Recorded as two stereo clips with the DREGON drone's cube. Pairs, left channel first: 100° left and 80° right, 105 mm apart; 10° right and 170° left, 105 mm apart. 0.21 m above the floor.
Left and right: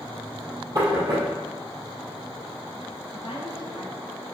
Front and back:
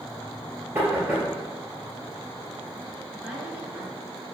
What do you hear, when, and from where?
0.8 s knocking: 130° right, 3 m
3.1 s a woman speaking: 95° left, 3 m